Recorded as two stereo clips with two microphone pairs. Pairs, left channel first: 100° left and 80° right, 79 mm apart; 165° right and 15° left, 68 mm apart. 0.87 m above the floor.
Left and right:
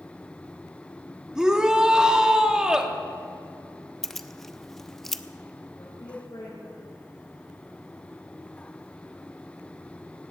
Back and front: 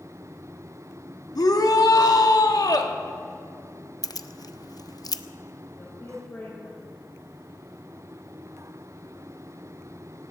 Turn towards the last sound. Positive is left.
turn(degrees=135)